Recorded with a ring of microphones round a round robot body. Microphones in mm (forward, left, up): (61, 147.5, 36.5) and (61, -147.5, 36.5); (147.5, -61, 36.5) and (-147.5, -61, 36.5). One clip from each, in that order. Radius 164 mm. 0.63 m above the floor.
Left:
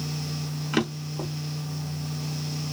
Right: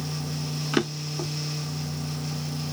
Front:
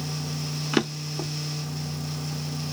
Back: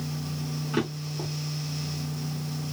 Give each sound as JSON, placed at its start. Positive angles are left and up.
{"t": 0.7, "sound": "a drawer", "azimuth_deg": -10, "distance_m": 0.7}